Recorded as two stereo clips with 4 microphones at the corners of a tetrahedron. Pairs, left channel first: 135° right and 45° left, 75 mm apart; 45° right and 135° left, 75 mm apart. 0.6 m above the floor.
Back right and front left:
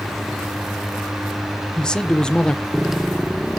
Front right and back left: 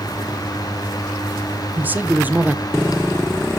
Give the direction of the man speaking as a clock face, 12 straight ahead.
7 o'clock.